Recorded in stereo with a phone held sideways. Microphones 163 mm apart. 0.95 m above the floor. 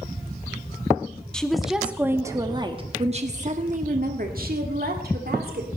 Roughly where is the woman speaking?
Centre.